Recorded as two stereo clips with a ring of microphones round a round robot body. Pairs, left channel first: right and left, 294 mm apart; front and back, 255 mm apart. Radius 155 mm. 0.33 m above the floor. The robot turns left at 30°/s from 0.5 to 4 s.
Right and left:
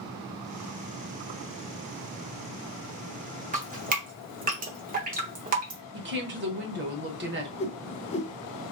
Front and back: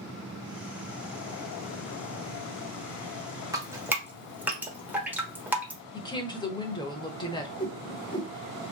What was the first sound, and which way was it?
Dripping, 120° left.